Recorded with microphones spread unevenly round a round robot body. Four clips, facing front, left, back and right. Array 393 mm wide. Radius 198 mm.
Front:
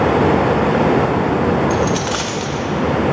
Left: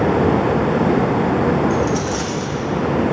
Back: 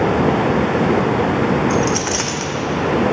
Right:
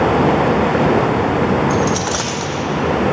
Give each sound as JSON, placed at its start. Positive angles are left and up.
{"t": 1.7, "sound": "a dropped coin", "azimuth_deg": -110, "distance_m": 1.0}